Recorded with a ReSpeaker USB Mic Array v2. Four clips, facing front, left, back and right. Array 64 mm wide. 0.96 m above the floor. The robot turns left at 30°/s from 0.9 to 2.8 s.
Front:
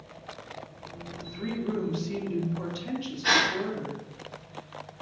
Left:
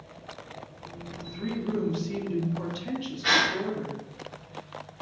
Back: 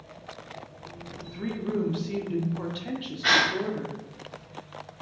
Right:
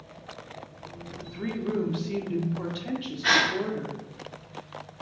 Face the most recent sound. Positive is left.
turn(degrees=-170)